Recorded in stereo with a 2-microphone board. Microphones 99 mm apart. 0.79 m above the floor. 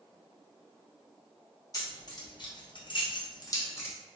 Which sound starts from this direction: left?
Keys jangling, at 1.7 s.